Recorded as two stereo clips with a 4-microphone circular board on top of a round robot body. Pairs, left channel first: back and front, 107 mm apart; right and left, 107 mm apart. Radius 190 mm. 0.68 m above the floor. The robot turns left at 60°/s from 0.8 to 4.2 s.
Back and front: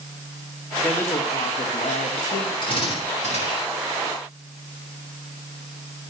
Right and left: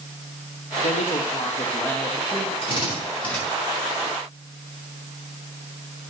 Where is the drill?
130° right, 5.5 m; by 3.4 s 175° right, 5.5 m.